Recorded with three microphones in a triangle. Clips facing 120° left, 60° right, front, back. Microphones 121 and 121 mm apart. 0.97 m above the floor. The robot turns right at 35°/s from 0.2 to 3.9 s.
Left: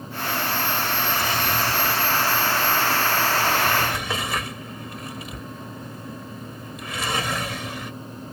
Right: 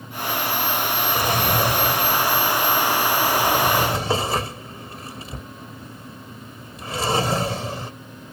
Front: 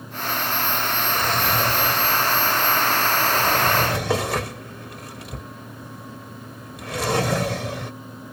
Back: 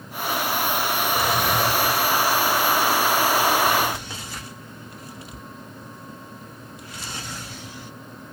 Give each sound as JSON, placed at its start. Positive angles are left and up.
{"t": 1.1, "sound": "a drawer", "azimuth_deg": -100}